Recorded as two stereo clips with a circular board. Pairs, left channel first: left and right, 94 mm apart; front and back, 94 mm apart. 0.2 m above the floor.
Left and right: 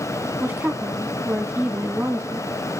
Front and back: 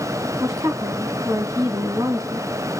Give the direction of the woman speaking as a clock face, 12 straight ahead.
5 o'clock.